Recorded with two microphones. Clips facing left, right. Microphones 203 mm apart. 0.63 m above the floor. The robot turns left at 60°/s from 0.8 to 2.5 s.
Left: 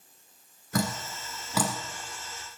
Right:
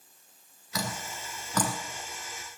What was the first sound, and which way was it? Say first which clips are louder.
Dripping: left 6 dB; 55° left (ahead or behind).